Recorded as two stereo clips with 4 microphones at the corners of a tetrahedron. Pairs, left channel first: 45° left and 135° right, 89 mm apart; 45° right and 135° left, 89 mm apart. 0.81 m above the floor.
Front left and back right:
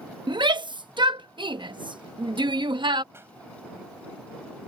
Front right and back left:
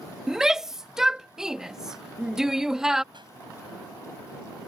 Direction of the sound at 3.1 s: 165° left.